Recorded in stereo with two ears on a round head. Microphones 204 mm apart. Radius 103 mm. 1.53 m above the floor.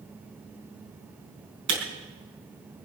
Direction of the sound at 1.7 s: 50° right (ahead or behind).